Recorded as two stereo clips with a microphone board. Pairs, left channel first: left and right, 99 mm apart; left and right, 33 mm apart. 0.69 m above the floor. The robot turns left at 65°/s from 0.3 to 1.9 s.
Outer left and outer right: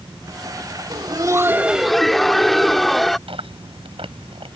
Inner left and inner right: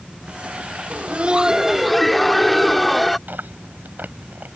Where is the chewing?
80° right.